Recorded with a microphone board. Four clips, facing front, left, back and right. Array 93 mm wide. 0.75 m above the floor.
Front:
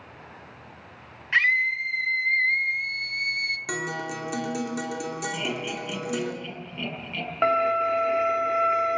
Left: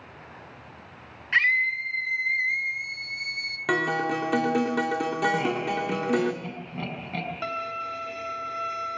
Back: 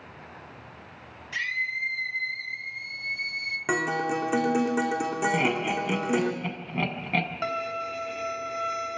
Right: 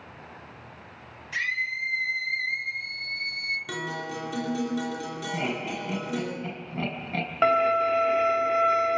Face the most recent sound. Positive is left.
turn(degrees=-50)